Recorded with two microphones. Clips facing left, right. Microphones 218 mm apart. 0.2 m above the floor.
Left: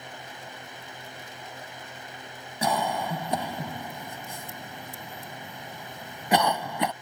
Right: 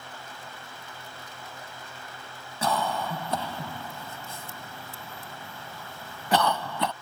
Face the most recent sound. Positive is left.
turn(degrees=15)  # may be behind; listen again after turning